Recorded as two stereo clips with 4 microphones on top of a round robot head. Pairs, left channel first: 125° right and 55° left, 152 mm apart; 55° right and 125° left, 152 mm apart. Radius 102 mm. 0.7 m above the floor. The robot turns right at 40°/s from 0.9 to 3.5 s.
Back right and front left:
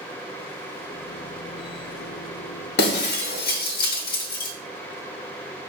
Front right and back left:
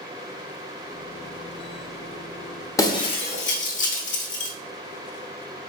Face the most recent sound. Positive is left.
turn(degrees=-95)